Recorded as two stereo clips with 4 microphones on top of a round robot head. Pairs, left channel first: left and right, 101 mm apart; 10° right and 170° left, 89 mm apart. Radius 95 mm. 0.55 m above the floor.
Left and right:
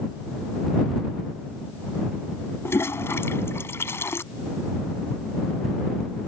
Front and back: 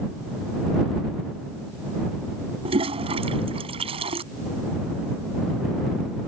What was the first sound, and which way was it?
A toilet flushing, 155° left.